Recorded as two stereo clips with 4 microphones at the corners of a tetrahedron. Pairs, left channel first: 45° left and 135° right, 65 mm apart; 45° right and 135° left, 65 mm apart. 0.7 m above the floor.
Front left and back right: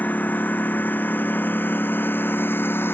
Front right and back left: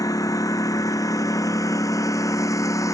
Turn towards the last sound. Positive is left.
turn(degrees=-10)